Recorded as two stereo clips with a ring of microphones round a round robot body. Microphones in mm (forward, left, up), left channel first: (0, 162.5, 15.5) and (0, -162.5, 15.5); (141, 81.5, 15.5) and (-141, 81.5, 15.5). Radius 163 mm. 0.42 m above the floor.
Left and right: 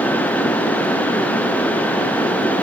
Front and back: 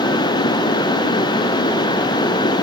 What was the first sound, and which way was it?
Only background noise.